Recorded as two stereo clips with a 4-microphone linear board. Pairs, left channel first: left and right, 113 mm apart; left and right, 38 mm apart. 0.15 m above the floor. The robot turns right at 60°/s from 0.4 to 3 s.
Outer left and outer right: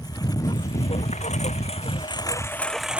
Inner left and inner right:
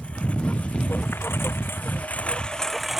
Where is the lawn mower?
35° left; by 3.0 s 170° right.